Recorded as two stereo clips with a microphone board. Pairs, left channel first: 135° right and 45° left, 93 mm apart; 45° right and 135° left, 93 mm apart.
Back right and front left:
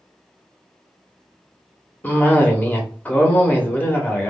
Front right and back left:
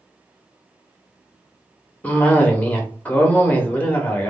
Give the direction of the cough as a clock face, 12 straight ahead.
3 o'clock.